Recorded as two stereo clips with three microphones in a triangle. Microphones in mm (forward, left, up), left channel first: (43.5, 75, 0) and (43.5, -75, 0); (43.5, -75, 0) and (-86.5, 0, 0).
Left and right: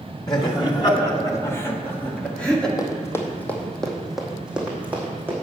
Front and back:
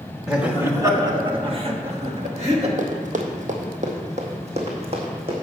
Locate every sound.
0.3 s laughter: 70° left, 1.1 m; by 2.7 s 175° left, 1.8 m
2.8 s running footsteps: 150° left, 1.5 m; by 5.3 s 165° right, 2.5 m